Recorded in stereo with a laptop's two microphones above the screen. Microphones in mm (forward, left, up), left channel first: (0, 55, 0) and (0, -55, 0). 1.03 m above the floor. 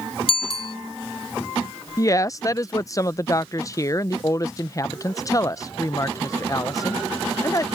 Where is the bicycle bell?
55° left (ahead or behind).